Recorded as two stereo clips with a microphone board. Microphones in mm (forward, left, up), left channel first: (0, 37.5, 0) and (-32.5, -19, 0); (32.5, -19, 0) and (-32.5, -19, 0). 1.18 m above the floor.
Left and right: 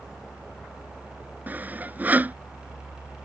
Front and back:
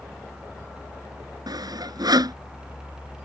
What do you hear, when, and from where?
1.5 s sawing: 175° left